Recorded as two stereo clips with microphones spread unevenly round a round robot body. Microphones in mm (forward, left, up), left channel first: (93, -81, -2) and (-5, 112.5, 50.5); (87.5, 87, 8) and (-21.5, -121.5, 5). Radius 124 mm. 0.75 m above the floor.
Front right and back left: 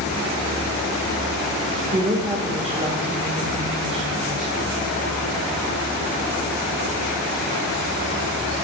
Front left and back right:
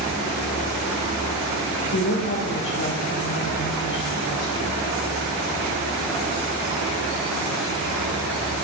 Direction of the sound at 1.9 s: 50° left.